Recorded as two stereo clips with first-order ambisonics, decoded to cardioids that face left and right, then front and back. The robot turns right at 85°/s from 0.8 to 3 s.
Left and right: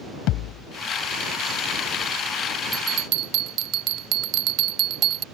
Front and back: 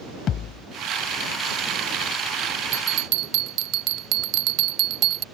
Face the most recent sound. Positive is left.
turn(degrees=-135)